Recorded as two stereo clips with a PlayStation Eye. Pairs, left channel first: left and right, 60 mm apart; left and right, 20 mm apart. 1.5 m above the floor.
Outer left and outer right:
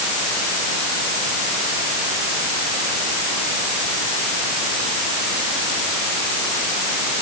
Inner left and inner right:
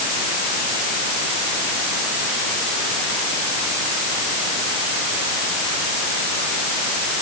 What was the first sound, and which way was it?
Only background noise.